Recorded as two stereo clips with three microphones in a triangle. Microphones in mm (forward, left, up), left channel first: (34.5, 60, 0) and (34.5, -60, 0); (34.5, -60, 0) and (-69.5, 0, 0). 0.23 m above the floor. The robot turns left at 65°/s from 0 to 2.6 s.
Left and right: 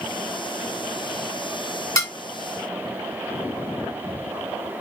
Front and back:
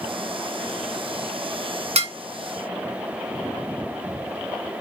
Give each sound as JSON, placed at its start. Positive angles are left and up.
{"t": 1.9, "sound": "dishes clattering", "azimuth_deg": 150, "distance_m": 1.5}